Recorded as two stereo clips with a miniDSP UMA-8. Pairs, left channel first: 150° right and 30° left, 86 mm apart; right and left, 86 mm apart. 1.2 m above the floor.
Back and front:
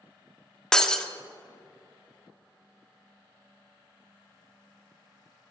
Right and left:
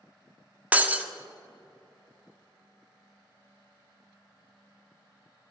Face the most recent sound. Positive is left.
turn(degrees=135)